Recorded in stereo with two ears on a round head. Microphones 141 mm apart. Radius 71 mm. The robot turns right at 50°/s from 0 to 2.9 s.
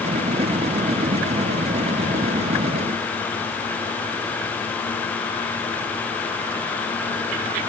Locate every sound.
Only background noise.